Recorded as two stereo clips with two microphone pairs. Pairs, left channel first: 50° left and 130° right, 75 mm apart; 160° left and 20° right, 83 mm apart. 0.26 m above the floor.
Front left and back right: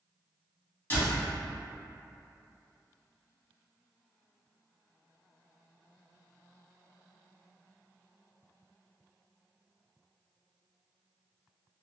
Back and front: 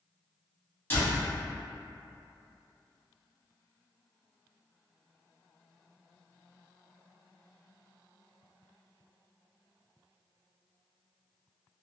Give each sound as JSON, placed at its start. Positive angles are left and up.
{"t": 0.9, "sound": "a door slam", "azimuth_deg": 105, "distance_m": 1.5}